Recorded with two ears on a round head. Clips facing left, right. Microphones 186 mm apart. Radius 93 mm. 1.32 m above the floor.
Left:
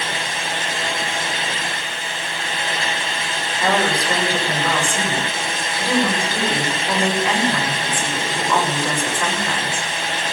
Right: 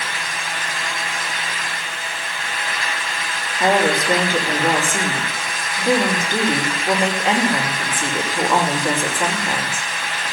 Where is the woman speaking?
20° right (ahead or behind), 5.5 m.